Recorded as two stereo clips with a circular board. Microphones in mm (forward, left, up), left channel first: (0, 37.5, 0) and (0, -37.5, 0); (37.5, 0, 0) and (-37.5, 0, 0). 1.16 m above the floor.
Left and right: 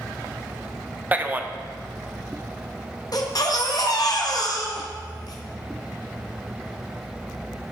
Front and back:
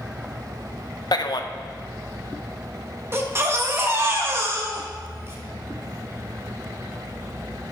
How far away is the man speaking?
About 0.6 m.